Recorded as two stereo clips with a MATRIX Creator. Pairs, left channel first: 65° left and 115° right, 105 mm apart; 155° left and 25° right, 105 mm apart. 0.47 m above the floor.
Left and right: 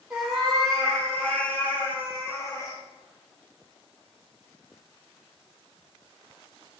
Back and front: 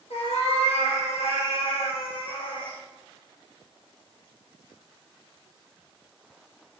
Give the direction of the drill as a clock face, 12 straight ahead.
I don't hear a drill.